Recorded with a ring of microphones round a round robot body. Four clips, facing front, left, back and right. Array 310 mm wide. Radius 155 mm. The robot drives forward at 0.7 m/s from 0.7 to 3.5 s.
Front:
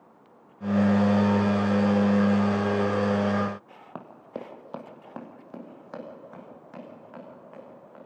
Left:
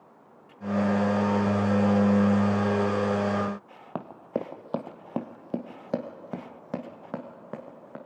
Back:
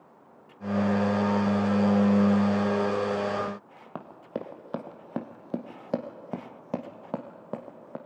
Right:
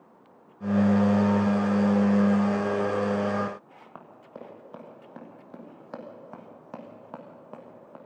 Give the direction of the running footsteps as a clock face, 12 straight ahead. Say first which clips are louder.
Left 13 dB, back 2 dB; 9 o'clock.